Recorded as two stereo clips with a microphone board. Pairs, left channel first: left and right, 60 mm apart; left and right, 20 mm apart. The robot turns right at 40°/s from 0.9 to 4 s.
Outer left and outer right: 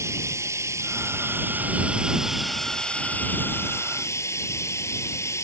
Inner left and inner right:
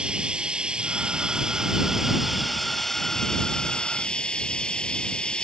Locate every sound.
0.0 s running water: 65° right; by 5.4 s 60° left